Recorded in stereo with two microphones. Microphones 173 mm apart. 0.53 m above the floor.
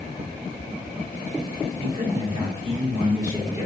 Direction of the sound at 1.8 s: 40° right (ahead or behind).